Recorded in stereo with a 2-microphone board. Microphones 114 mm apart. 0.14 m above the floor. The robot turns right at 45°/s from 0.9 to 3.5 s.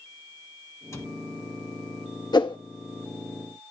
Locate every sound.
0.9 s a cupboard door: 25° left (ahead or behind), 1.7 m
2.3 s a whoosh: 40° left (ahead or behind), 1.3 m; by 2.6 s 45° left (ahead or behind), 1.3 m